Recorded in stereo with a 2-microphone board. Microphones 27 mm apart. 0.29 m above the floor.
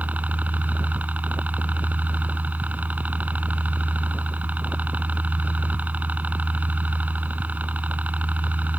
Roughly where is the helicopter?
Right.